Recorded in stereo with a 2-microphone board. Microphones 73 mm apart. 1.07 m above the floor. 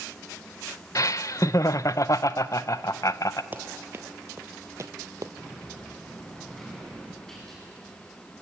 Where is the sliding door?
5° left (ahead or behind), 8 m.